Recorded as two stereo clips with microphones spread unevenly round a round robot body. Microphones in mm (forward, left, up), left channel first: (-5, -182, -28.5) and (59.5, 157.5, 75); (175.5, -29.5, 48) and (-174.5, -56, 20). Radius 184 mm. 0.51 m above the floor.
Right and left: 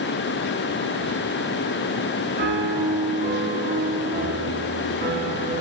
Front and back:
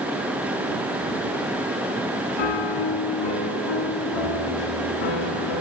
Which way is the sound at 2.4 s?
15° left.